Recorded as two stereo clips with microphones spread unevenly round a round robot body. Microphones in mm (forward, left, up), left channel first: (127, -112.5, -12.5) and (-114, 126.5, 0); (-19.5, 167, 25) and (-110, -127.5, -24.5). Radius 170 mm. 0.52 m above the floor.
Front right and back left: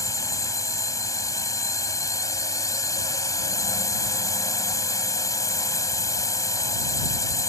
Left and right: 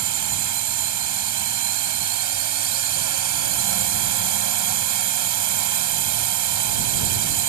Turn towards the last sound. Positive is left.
turn(degrees=-125)